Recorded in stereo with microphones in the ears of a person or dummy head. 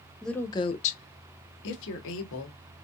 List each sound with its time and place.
0.2 s a woman speaking: centre (ahead or behind), 0.6 m; by 2.6 s 75° left (ahead or behind), 1.5 m